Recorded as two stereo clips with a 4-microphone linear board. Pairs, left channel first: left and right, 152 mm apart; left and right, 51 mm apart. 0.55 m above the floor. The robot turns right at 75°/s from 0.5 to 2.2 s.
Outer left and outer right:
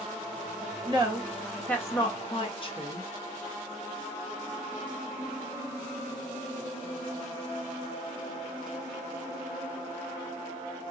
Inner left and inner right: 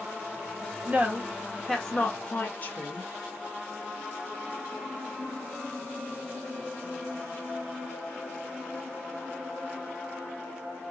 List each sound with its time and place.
0.9 s a woman speaking: 35° right (ahead or behind), 1.3 m; by 3.1 s 40° left (ahead or behind), 1.3 m